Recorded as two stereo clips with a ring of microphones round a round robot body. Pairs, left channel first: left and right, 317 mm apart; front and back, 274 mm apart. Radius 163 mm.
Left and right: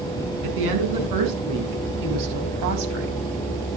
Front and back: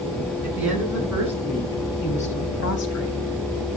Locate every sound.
0.4 s a woman speaking: 95° right, 5.5 m; by 3.2 s 40° right, 3.5 m